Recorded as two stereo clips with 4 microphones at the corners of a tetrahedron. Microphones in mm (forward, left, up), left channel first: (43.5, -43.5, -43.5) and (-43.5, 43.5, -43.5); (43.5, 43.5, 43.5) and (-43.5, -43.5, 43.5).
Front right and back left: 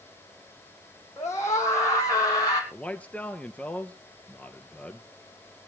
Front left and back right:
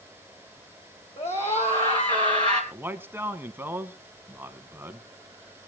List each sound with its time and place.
1.2 s a scream: 20° left, 3.5 m; by 2.6 s straight ahead, 2.5 m
2.7 s a man speaking: 100° right, 1.1 m